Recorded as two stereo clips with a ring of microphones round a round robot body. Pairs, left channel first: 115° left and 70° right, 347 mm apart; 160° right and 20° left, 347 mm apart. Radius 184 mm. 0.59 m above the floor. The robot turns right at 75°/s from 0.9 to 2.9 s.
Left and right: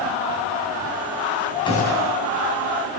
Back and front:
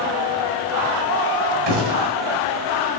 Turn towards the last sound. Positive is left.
turn(degrees=130)